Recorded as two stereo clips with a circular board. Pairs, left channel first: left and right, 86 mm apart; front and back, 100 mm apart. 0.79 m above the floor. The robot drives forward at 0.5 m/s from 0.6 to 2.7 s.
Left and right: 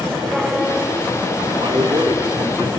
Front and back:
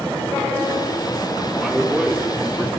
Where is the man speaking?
90° right, 2.5 m; by 2.7 s 105° right, 2.5 m.